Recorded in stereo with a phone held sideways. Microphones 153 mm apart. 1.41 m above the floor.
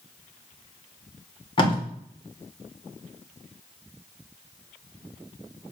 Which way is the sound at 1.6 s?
35° left (ahead or behind).